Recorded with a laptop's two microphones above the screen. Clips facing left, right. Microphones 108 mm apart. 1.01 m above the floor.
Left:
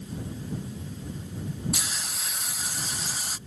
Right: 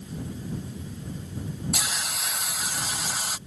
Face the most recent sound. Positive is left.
turn(degrees=-90)